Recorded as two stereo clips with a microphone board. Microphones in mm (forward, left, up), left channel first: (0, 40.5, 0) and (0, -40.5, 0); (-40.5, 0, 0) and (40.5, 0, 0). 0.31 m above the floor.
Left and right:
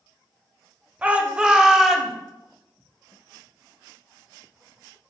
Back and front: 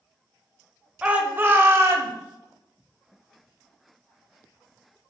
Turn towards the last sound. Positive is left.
turn(degrees=-5)